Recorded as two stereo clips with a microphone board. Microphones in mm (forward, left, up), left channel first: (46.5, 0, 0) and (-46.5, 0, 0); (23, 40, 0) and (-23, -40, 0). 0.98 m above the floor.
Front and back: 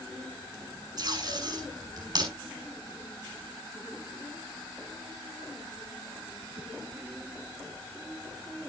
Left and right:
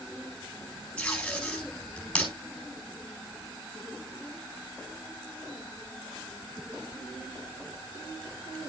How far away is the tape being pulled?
About 7.5 m.